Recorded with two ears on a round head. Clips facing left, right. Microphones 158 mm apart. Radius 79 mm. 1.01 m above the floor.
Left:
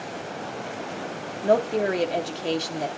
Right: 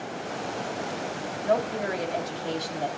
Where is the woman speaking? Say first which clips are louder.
Left 5 dB; 45° left (ahead or behind), 2.5 m; by 2.9 s 30° left (ahead or behind), 3 m.